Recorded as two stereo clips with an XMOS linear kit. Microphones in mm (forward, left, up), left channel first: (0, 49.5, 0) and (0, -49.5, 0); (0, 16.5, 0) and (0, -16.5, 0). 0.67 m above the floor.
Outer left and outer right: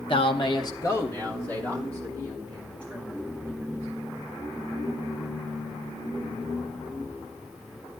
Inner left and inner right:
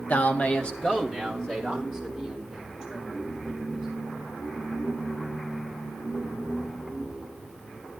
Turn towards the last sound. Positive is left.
turn(degrees=10)  # may be behind; listen again after turning